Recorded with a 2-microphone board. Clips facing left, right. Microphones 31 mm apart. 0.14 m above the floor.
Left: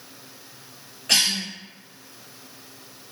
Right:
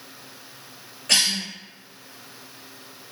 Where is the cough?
10° left (ahead or behind), 1.2 m.